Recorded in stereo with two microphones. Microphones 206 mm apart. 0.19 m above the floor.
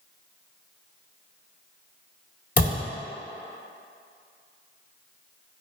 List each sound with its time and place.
2.6 s a thud: 45° left (ahead or behind), 1.4 m